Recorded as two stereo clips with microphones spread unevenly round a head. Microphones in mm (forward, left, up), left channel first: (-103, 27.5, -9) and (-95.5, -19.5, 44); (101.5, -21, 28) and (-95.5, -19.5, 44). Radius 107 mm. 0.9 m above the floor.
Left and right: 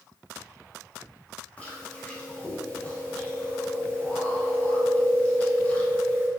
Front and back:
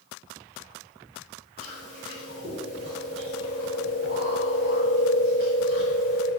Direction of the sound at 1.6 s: 115° left.